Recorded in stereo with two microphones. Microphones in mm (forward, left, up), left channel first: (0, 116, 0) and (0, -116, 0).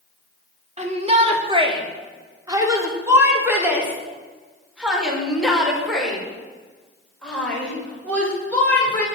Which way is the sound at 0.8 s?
30° right (ahead or behind).